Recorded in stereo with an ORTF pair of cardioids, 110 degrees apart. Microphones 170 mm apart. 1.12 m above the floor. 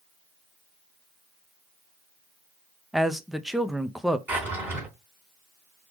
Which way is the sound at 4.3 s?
10° right.